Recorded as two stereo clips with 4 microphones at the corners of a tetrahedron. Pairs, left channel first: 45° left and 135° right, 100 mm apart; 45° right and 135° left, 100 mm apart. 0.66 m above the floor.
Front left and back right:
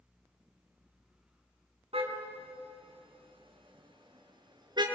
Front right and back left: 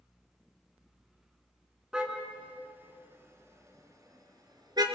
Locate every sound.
1.9 s a car horn: 140° right, 3 m; by 4.8 s straight behind, 4 m